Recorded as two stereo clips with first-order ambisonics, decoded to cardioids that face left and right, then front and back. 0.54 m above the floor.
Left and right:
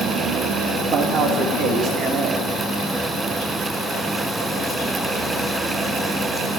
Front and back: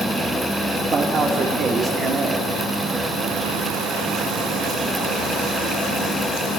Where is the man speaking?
140° right, 1.1 m.